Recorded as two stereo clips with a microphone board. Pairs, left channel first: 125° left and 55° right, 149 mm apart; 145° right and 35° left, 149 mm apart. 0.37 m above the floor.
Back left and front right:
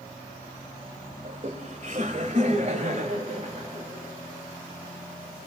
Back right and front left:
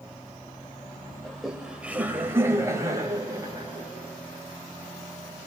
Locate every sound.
1.2 s laughter: 55° right, 1.6 m; by 3.8 s 25° right, 2.5 m